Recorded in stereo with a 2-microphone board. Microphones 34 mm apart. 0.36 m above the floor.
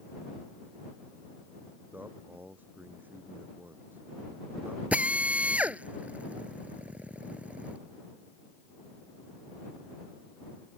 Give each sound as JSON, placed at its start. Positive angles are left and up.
{"t": 1.9, "sound": "a man speaking", "side_deg": -60}
{"t": 4.9, "sound": "a drill", "side_deg": -45}